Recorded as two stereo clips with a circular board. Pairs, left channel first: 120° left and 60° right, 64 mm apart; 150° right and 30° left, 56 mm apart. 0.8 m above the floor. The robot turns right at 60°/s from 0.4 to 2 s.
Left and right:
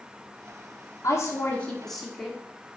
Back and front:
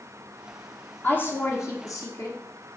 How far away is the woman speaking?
About 1.7 m.